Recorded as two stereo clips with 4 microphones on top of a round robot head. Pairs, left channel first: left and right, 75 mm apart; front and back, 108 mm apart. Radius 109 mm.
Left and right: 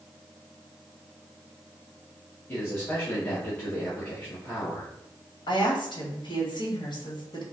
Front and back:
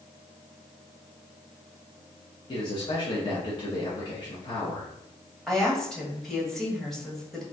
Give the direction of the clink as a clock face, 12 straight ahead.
No clink in this recording.